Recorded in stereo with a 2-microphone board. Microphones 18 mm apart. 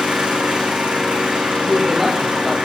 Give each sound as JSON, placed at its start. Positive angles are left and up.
{"t": 0.0, "sound": "an engine running", "side_deg": -70, "distance_m": 5.0}
{"t": 1.6, "sound": "a man speaking", "side_deg": -10, "distance_m": 6.0}